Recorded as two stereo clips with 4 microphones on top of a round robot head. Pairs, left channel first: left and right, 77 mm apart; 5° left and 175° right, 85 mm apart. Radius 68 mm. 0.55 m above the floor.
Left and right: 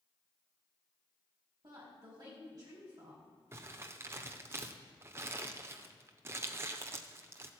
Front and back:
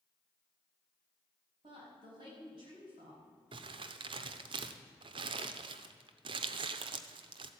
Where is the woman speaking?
140° right, 5.5 m.